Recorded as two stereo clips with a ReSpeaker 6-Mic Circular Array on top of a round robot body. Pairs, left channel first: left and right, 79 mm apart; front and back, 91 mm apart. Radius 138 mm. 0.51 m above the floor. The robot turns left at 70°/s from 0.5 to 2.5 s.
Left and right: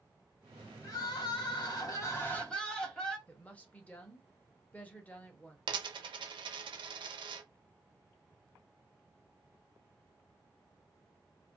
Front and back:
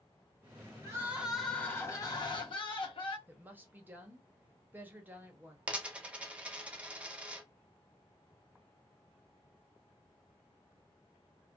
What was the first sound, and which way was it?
Crying, 125° left.